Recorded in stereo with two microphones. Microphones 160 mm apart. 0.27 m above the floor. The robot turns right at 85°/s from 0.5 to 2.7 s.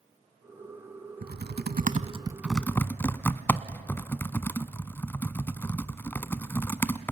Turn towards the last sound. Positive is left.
turn(degrees=15)  # may be behind; listen again after turning